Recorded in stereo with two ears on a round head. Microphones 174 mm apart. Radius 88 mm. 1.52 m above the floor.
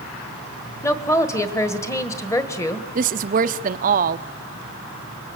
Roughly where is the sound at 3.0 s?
Right.